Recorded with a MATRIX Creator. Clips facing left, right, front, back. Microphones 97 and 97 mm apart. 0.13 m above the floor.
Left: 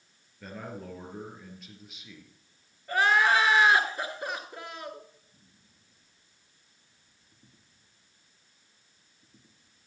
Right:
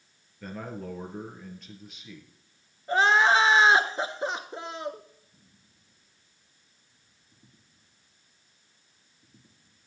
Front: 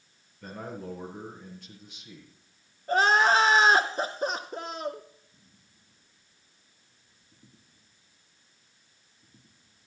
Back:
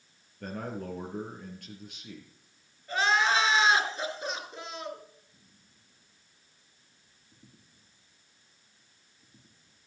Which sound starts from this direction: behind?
A man speaking, at 0.4 s.